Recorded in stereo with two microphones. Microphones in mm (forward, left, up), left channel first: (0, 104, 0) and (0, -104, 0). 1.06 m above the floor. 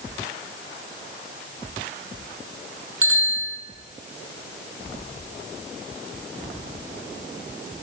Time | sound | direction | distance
3.0 | a bicycle bell | 75° right (ahead or behind) | 9 m